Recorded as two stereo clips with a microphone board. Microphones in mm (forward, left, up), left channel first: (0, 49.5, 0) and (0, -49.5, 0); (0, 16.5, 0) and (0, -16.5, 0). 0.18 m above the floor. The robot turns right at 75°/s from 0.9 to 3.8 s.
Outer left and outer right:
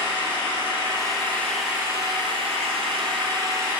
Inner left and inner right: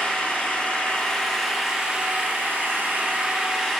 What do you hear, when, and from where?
0.0 s an engine running: 130° left, 1.7 m; by 3.8 s 10° right, 1.7 m